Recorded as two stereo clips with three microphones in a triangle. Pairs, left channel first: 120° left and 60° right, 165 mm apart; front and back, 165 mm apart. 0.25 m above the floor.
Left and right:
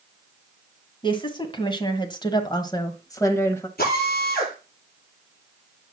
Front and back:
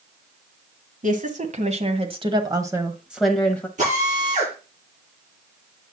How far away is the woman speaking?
About 2 m.